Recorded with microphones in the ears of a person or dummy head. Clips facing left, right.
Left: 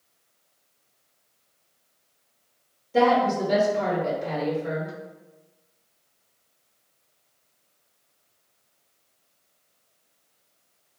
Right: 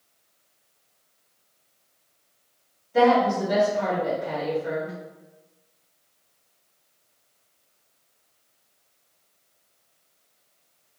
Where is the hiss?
No hiss in this recording.